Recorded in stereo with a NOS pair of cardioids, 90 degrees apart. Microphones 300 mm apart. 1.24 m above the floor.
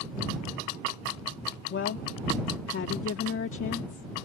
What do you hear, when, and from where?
1.7 s a woman speaking: 45° left